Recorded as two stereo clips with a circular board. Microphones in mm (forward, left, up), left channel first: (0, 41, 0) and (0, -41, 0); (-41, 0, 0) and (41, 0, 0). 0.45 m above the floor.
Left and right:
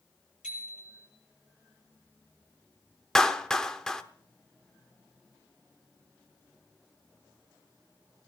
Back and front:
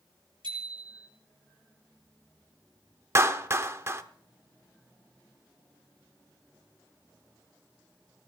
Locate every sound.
0.4 s a bicycle bell: 10° right, 7 m
3.1 s a clap: 15° left, 0.8 m